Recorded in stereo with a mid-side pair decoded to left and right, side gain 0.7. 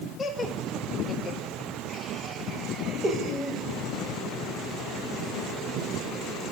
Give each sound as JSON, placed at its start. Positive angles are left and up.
{"t": 0.2, "sound": "laughter", "azimuth_deg": 15, "distance_m": 4.0}